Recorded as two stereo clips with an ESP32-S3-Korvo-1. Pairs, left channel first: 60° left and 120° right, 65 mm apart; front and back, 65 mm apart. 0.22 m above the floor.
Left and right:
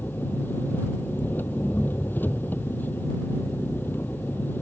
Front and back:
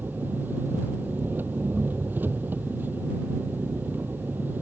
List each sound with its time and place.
0.0 s an engine running: 120° left